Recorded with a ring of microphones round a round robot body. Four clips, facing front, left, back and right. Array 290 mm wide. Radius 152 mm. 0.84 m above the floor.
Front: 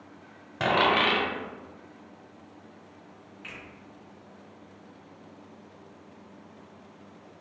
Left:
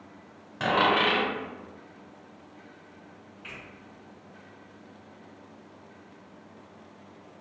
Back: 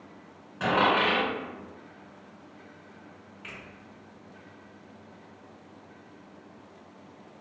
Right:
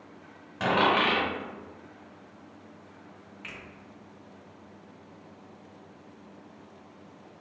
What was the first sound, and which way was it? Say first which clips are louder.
A dropped coin: even, even; 5° left.